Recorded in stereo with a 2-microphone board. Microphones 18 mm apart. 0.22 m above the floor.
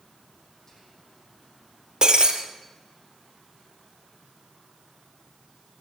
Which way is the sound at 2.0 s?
40° right (ahead or behind).